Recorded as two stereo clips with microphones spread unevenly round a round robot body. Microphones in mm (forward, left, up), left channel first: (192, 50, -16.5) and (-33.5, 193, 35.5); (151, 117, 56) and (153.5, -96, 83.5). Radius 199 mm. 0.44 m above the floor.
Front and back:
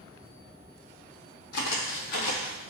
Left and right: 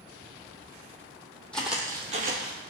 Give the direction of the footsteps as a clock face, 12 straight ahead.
12 o'clock.